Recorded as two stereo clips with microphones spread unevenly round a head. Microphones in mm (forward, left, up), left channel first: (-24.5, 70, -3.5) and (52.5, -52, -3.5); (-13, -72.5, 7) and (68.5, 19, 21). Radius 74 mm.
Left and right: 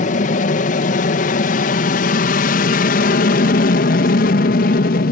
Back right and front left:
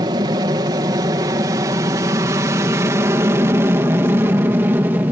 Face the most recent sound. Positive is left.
turn(degrees=125)